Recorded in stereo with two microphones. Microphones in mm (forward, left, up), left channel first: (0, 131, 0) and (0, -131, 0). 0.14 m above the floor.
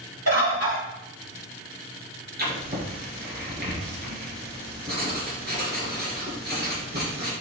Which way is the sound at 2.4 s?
40° right (ahead or behind).